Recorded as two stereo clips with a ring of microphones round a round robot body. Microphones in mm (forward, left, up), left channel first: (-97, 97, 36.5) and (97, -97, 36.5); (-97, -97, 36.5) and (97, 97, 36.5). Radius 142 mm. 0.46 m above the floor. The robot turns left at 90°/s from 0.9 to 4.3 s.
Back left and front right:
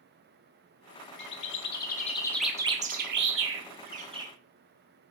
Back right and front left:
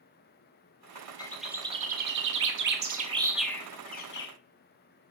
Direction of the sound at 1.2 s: 155° left.